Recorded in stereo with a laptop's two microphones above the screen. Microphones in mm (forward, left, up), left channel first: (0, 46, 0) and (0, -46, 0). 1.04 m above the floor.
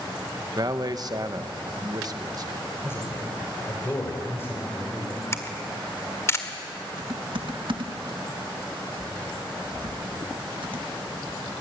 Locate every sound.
0.6 s a man speaking: 45° right (ahead or behind), 1.2 m
2.8 s a man speaking: 25° left (ahead or behind), 5 m
5.3 s a camera shutter: 30° left (ahead or behind), 1.6 m
7.0 s typing on a keyboard: 65° right (ahead or behind), 1.6 m